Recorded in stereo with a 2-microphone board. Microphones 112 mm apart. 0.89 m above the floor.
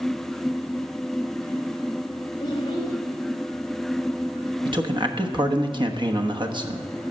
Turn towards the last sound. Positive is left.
turn(degrees=-45)  # may be behind; listen again after turning